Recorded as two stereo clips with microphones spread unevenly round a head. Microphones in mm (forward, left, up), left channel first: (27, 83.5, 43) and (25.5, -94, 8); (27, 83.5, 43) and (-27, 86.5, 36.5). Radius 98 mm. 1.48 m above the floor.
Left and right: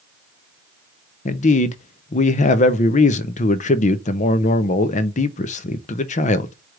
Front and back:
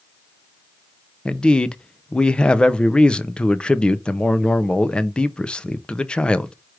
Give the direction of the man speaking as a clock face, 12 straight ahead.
10 o'clock.